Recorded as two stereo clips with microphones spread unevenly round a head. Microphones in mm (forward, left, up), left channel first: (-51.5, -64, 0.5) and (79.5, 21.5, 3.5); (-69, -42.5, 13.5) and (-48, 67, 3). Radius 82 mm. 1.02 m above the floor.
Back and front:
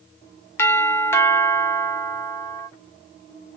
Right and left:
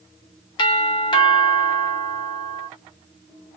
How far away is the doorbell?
About 0.6 m.